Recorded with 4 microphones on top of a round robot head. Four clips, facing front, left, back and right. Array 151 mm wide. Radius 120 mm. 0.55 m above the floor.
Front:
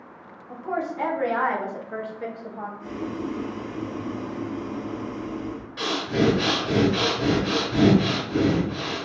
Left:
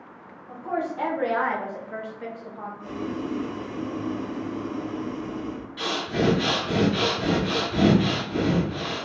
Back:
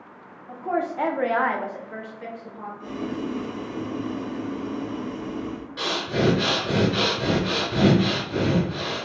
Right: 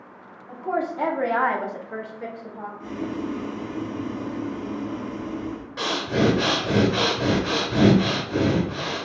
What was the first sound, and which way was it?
A woman speaking, 155° right.